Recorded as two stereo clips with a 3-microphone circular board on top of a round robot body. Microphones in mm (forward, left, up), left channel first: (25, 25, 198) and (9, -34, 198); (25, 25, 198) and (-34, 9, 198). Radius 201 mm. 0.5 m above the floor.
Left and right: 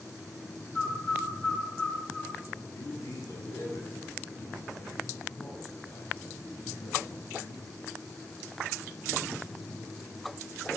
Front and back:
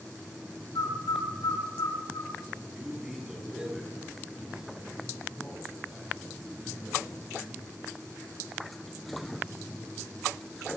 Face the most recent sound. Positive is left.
turn(degrees=115)